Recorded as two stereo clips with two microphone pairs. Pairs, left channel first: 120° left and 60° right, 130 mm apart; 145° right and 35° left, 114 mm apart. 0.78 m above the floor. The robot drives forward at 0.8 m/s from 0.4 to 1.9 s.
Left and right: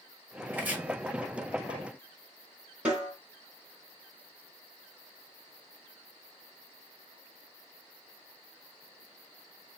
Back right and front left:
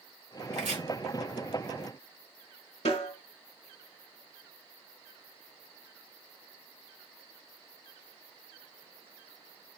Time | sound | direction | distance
0.5 | chopping | 20° left | 1.4 m
2.9 | a snare drum | 140° right | 2 m